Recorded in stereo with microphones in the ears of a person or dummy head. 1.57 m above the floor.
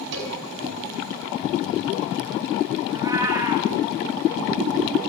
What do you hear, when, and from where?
0.1 s a cowbell: 70° right (ahead or behind), 5 m
2.9 s a cat meowing: 15° right (ahead or behind), 3 m